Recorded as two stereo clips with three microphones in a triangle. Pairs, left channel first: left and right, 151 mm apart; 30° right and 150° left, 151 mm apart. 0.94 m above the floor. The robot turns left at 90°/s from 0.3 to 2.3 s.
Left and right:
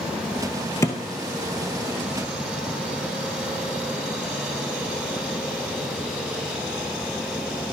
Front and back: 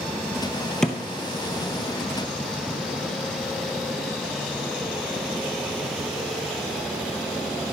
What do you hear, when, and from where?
0.8 s a thud: 50° left, 1.0 m; by 1.0 s 35° left, 1.0 m